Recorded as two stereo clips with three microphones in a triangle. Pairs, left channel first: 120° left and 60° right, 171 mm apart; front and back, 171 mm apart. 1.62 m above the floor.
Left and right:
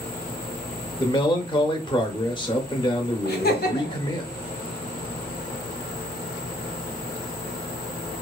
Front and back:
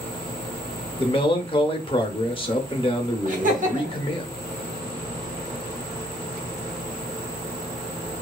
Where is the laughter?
140° left, 1.3 m.